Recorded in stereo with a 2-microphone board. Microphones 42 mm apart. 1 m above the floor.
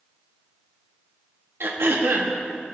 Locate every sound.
1.6 s throat clearing: 70° right (ahead or behind), 1.7 m